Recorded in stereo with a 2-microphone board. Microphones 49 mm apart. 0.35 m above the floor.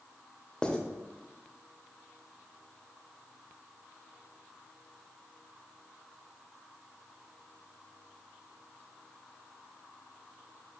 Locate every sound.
0.6 s writing: 15° left (ahead or behind), 0.8 m